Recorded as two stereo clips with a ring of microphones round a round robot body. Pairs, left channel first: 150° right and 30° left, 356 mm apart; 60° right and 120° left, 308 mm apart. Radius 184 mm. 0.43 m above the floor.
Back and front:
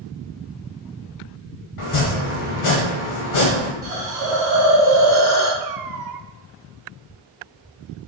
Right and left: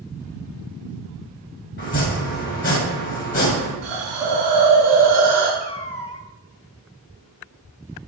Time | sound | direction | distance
1.8 | chopping | 115° right | 2.5 m
3.8 | a hiss | 110° left | 3.5 m
5.6 | a cat meowing | 10° left | 0.8 m